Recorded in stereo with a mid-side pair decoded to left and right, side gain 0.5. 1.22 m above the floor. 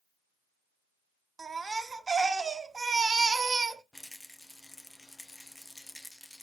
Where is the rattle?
10° left, 0.5 m.